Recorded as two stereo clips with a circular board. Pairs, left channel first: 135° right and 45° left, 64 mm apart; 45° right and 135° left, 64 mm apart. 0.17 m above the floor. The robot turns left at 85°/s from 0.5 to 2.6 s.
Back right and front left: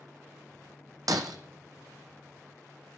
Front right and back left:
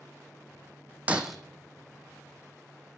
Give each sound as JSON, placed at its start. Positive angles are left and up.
{"t": 1.1, "sound": "breaking glass", "azimuth_deg": 70, "distance_m": 0.7}